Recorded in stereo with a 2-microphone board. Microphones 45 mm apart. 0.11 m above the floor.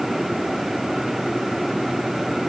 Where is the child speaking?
No child speaking in this recording.